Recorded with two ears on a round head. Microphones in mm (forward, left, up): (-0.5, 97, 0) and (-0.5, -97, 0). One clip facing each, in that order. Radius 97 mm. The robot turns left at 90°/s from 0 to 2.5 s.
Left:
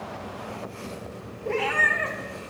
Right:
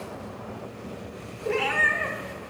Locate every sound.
1.4 s a cat meowing: 155° right, 1.1 m; by 2.2 s 140° left, 1.1 m